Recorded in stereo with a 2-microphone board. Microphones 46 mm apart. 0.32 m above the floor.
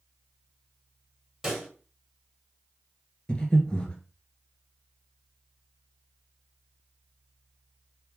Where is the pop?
5° right (ahead or behind), 1.7 m.